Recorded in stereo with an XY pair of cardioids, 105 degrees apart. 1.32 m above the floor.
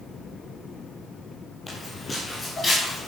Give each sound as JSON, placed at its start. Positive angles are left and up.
{"t": 1.7, "sound": "footsteps", "azimuth_deg": 25, "distance_m": 8.5}